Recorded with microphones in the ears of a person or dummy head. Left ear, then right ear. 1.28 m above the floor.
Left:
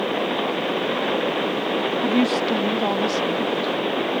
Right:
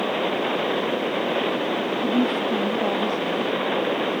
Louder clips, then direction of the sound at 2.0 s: Left 2 dB; 35° left (ahead or behind).